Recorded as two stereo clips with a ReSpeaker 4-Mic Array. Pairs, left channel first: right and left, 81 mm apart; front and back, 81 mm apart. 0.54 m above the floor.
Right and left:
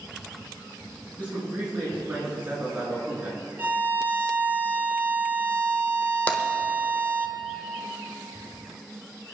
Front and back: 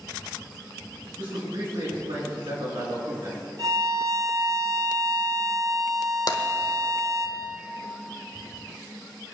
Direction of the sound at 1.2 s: 160° left.